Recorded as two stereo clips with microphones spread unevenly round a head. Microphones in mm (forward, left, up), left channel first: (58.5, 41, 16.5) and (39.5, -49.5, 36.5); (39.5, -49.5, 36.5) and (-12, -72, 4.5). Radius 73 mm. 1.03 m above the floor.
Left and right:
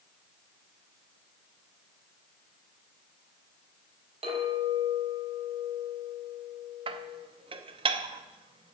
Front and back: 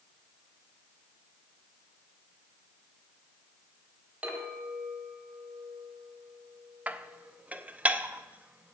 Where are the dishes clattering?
80° right, 0.7 m.